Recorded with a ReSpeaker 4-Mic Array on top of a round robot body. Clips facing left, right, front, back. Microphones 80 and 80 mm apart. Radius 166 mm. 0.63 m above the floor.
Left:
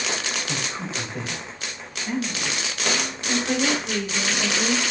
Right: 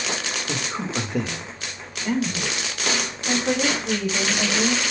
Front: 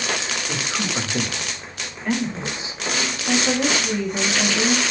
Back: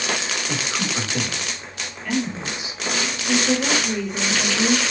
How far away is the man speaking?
About 3.5 m.